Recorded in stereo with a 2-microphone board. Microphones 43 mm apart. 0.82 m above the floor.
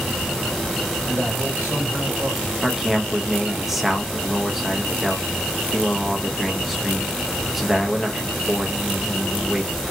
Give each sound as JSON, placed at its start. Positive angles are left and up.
{"t": 1.1, "sound": "a man speaking", "side_deg": -60, "distance_m": 2.5}
{"t": 2.6, "sound": "a man speaking", "side_deg": -5, "distance_m": 0.6}